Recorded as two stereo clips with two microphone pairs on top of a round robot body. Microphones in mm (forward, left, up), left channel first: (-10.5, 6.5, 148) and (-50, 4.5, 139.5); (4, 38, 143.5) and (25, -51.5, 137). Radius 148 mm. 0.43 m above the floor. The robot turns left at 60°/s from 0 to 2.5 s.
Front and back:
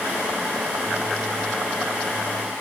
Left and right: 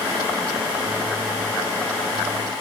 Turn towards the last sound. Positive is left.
No sound to turn to.